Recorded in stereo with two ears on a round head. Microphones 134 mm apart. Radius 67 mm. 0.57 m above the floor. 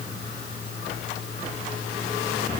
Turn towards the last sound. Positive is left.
No sound to turn to.